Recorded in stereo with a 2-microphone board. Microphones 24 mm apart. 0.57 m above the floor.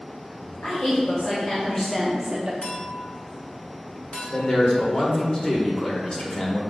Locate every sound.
0.6 s a woman speaking: 65° left (ahead or behind), 2.5 m; by 2.5 s 40° right (ahead or behind), 1.2 m
2.6 s a clink: 65° left (ahead or behind), 1.8 m
4.3 s a man speaking: 40° left (ahead or behind), 1.8 m